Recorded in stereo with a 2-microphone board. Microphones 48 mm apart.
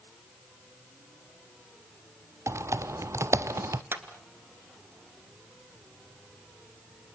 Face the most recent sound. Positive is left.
turn(degrees=-55)  # may be behind; listen again after turning